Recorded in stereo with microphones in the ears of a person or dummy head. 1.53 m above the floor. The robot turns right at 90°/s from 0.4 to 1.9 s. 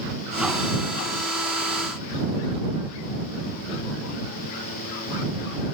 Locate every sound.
Only background noise.